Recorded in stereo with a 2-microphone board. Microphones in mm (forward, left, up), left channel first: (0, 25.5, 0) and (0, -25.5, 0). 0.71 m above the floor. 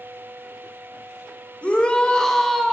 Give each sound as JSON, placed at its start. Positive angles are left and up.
{"t": 1.6, "sound": "a shout", "side_deg": 30, "distance_m": 2.0}